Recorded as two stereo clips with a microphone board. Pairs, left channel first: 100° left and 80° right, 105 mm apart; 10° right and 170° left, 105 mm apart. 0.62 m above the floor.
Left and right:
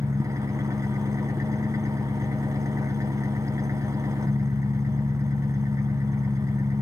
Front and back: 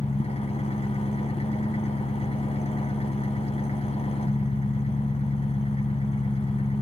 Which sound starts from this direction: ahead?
An engine running, at 0.0 s.